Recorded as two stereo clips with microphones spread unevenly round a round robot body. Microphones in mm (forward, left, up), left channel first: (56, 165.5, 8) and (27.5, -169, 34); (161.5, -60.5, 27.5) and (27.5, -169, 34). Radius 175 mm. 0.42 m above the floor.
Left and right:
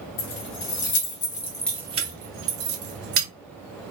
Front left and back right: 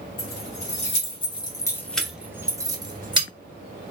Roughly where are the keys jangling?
Left.